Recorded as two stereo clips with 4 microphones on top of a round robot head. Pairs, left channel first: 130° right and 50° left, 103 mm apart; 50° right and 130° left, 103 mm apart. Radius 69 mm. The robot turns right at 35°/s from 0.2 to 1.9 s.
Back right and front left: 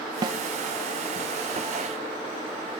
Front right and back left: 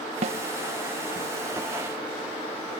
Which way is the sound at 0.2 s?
105° left.